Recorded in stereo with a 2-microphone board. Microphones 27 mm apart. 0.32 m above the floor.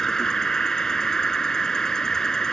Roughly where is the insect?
Left.